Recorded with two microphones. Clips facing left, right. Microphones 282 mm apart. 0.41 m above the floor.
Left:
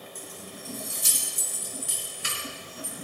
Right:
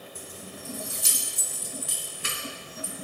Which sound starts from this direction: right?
Keys jangling, at 0.1 s.